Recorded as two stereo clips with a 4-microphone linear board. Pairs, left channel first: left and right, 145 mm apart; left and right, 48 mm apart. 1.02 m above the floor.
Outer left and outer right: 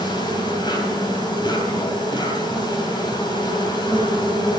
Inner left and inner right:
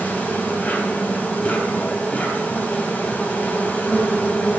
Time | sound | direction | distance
0.0 | an insect | 30° left (ahead or behind) | 3.5 m